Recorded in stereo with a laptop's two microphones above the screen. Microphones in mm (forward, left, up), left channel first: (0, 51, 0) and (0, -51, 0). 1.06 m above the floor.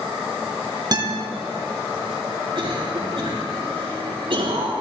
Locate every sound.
0.9 s a guitar: 45° right (ahead or behind), 2.5 m
2.5 s a cough: 65° right (ahead or behind), 4 m